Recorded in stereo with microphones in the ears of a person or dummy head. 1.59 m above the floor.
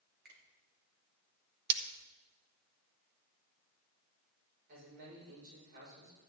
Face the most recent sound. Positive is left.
turn(degrees=-55)  # may be behind; listen again after turning